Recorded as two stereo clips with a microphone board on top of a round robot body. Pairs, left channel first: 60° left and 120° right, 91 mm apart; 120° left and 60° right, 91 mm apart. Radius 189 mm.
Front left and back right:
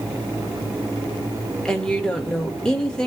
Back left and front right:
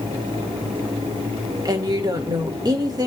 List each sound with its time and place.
1.6 s a woman speaking: 20° right, 2.5 m